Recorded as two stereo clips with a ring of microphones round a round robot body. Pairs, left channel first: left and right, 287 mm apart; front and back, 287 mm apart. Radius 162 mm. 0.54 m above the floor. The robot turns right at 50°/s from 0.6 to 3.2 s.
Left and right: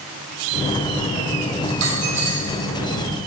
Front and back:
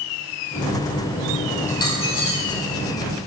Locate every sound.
1.7 s a dropped coin: 65° right, 3.5 m; by 2.6 s 20° right, 3.5 m